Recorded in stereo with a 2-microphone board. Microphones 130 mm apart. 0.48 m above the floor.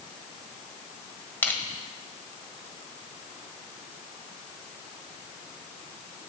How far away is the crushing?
About 1.7 m.